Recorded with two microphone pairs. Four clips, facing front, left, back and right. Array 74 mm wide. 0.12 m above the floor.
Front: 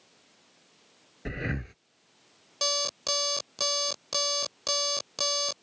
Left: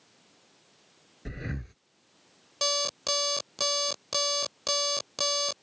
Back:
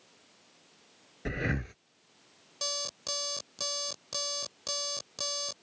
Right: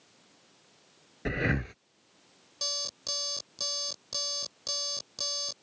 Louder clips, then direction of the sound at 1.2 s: Right 9 dB, back 1 dB; 100° right.